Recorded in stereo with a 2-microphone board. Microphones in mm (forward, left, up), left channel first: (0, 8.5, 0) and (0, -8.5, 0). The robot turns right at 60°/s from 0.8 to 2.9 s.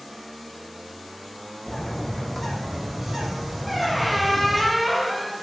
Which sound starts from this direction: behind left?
A bird, at 1.7 s.